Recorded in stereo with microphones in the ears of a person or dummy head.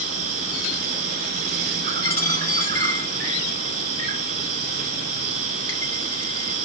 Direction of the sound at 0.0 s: 50° right (ahead or behind).